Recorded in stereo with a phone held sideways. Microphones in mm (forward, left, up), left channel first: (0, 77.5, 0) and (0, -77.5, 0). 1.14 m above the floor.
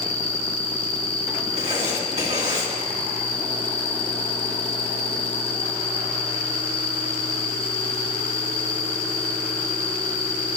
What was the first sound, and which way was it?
An insect, 40° left (ahead or behind).